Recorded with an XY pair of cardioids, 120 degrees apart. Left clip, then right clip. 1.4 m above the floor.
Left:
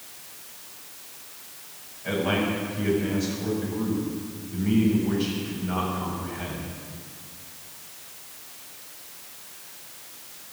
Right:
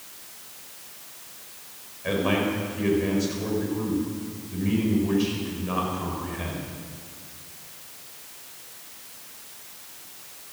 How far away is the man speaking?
About 6 m.